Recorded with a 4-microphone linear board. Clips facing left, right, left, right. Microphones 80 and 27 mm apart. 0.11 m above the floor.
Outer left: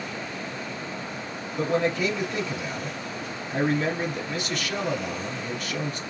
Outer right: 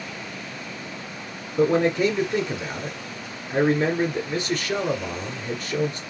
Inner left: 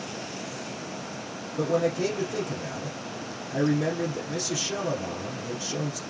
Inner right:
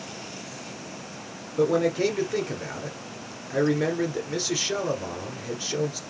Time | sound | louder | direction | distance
1.6 | a man speaking | outer right 5 dB, inner right 3 dB | 35° right (ahead or behind) | 1.8 m